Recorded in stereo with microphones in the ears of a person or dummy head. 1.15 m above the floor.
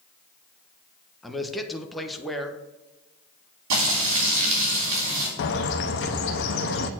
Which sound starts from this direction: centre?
A man speaking, at 1.2 s.